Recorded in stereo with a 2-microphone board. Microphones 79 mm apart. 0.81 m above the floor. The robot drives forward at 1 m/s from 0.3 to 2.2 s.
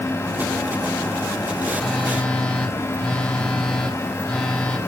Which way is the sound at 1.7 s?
10° left (ahead or behind).